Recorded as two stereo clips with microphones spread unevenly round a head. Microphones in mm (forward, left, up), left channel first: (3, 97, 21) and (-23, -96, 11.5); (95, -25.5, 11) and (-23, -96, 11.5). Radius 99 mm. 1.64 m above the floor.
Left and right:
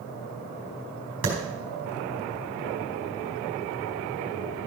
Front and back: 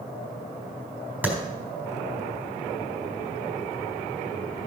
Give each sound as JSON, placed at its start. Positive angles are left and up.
{"t": 1.2, "sound": "a clap", "azimuth_deg": -70, "distance_m": 4.0}